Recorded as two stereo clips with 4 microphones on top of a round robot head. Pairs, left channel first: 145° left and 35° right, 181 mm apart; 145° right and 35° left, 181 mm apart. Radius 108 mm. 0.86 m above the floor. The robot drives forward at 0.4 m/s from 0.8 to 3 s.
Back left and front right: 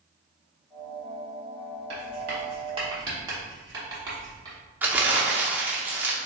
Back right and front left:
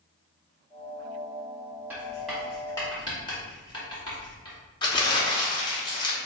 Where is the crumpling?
105° right, 1.0 m.